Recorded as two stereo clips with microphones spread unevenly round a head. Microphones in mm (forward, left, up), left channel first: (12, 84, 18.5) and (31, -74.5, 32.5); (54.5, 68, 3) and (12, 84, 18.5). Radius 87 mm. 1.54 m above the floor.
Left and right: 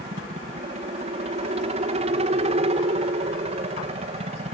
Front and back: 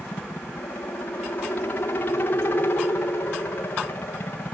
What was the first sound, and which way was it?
A helicopter, 40° right.